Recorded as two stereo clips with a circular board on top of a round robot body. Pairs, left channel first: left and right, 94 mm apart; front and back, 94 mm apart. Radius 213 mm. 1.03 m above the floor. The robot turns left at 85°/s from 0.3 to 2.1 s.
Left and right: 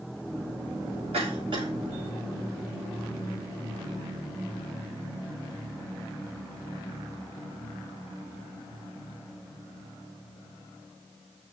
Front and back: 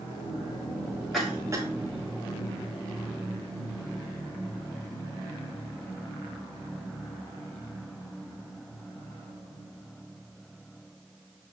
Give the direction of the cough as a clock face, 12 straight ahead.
3 o'clock.